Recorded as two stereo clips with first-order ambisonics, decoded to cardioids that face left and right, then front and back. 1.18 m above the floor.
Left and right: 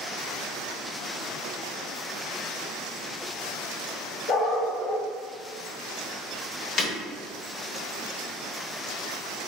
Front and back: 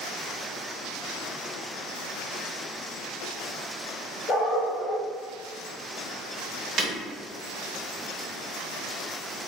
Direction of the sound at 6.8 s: 135° left.